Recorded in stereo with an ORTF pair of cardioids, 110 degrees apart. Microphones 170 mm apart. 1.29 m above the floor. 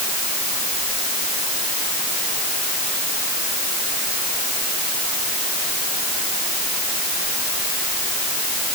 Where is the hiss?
No hiss in this recording.